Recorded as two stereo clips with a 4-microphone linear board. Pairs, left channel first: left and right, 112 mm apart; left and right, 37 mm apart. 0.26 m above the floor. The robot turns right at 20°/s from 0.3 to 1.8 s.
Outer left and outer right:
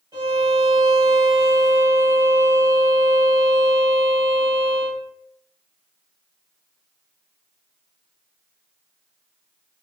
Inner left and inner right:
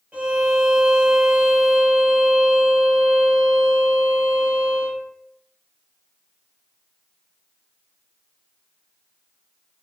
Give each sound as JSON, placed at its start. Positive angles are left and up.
{"t": 0.1, "sound": "a violin", "azimuth_deg": -80, "distance_m": 0.8}